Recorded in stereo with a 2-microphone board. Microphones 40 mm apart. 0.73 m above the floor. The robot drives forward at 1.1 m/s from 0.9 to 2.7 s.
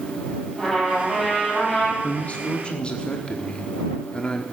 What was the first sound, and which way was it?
A trumpet, 10° left (ahead or behind).